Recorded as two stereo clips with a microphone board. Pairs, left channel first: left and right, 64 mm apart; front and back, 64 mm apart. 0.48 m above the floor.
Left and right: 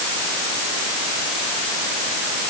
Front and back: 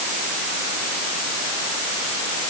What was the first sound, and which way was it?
Only background noise.